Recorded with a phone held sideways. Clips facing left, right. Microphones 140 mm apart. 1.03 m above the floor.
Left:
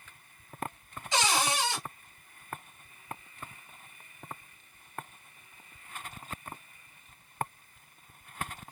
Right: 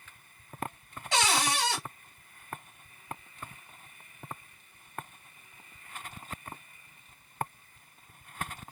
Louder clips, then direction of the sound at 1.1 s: Even; 75° right (ahead or behind).